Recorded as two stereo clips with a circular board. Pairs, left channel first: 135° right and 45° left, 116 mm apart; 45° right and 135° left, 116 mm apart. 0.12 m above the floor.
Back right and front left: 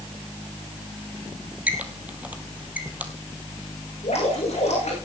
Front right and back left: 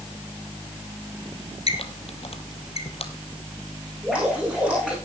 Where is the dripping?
145° right, 8 m.